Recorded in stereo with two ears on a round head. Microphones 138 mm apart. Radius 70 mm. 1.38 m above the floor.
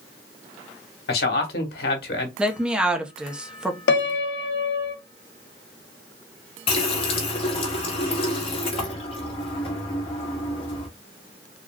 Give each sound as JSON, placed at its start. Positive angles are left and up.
{"t": 1.1, "sound": "a man speaking", "side_deg": 70, "distance_m": 1.2}
{"t": 2.4, "sound": "a woman speaking", "side_deg": -5, "distance_m": 0.7}
{"t": 3.9, "sound": "a piano", "side_deg": 85, "distance_m": 0.6}
{"t": 6.7, "sound": "a running tap", "side_deg": 40, "distance_m": 1.2}